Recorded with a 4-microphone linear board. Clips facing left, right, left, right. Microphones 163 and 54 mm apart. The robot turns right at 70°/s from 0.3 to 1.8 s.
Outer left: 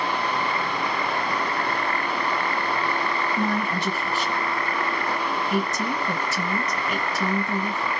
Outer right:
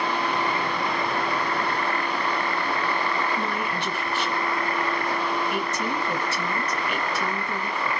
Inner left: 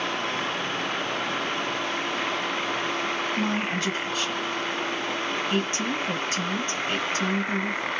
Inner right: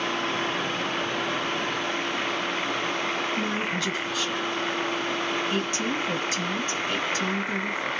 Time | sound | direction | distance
3.4 | a woman speaking | 40° left (ahead or behind) | 1.7 m